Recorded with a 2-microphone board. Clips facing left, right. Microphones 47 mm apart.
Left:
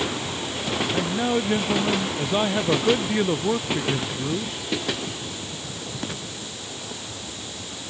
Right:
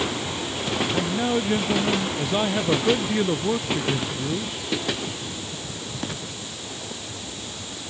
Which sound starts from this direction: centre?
A man speaking, at 0.9 s.